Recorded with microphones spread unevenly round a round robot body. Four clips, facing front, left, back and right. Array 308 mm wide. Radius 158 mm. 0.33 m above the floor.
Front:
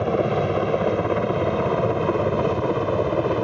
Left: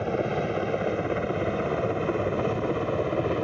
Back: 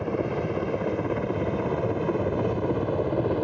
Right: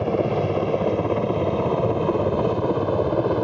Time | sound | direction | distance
0.0 | a helicopter | 40° right | ?